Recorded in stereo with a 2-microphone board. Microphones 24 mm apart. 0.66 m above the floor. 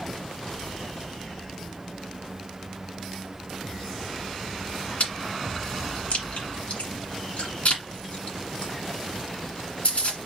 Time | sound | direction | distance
5.0 | chewing | 65° left (ahead or behind) | 1.9 m